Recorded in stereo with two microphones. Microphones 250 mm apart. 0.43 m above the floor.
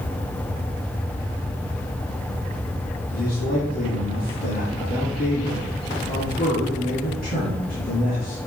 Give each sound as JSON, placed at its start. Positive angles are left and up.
{"t": 3.1, "sound": "a man speaking", "side_deg": 35, "distance_m": 5.0}